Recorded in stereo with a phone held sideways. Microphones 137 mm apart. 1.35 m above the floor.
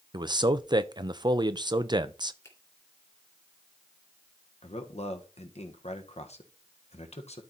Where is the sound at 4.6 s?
55° left (ahead or behind), 1.4 m.